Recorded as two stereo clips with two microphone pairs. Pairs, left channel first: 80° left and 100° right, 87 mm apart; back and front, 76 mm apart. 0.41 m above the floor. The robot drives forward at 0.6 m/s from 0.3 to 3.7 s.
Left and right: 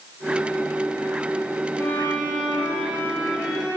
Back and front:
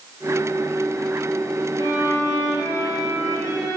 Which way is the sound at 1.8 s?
145° left.